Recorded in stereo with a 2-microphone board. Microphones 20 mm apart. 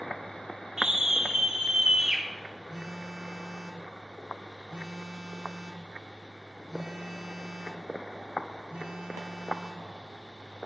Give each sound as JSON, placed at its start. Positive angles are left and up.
{"t": 0.8, "sound": "a scream", "side_deg": -25, "distance_m": 3.5}
{"t": 2.7, "sound": "a phone buzzing", "side_deg": -65, "distance_m": 3.0}